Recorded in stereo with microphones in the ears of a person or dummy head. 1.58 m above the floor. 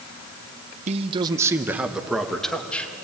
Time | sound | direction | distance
0.9 | a man speaking | 40° right (ahead or behind) | 1.1 m